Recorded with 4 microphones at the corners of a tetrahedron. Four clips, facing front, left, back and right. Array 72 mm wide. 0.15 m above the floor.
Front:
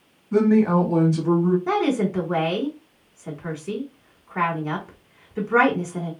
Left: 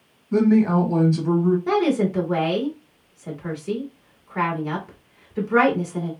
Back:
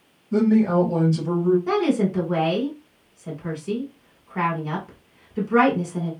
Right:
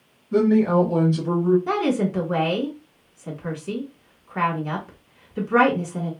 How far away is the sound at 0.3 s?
About 1.1 m.